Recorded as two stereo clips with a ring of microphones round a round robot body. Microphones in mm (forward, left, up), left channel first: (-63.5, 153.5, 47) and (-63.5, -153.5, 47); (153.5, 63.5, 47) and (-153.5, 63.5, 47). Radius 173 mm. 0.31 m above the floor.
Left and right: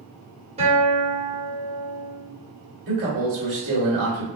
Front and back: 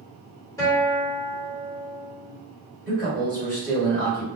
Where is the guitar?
65° right, 1.3 m.